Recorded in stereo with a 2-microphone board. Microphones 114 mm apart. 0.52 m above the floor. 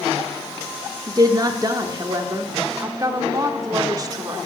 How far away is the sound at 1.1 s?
About 0.8 m.